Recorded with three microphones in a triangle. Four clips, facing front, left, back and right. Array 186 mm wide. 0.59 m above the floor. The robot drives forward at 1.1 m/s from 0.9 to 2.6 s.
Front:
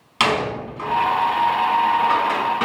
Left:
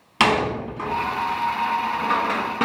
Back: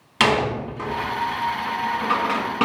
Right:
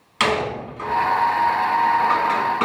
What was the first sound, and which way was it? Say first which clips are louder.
A door slam: left 2 dB, back 1 dB; 105° left.